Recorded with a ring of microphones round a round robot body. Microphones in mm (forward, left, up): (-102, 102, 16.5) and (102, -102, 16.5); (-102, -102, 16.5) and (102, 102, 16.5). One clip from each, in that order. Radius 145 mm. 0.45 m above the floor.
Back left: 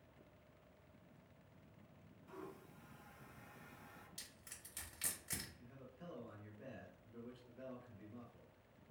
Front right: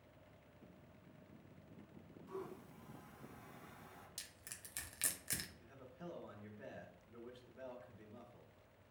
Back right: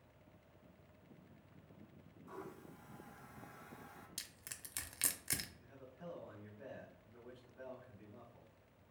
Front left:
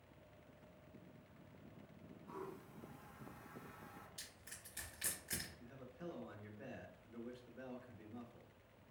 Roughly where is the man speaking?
Ahead.